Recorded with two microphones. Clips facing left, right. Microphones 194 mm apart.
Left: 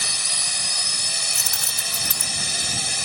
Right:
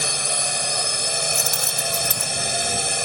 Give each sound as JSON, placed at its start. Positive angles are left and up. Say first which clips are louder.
{"t": 0.0, "sound": "a drone", "louder": "right 9 dB", "side_deg": -55}
{"t": 1.4, "sound": "keys jangling", "louder": "right 9 dB", "side_deg": 0}